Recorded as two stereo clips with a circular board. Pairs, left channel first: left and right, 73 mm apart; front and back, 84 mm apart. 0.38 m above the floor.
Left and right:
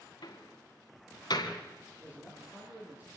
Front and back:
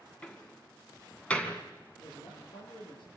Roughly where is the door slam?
Left.